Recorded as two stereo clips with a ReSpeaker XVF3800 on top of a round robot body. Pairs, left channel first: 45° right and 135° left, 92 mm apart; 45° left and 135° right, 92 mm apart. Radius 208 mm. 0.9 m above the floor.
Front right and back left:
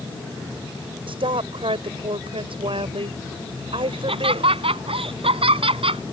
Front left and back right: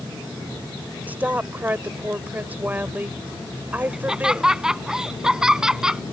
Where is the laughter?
145° left.